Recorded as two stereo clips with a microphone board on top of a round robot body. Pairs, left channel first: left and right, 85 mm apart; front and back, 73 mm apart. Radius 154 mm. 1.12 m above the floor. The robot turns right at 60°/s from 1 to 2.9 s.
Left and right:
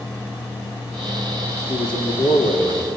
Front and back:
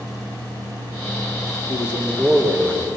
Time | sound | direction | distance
1.7 | a man speaking | 50° left | 3.5 m